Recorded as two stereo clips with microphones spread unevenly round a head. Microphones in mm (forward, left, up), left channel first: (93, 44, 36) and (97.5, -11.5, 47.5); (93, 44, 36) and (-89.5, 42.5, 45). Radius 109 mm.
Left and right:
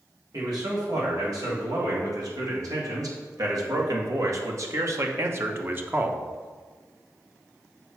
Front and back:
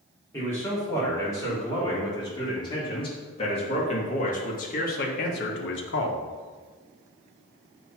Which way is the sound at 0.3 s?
80° right.